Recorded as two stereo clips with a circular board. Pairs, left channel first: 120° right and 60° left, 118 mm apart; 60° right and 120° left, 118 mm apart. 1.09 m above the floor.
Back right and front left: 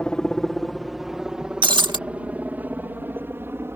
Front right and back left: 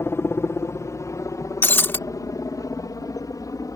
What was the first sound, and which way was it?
A helicopter, 45° right.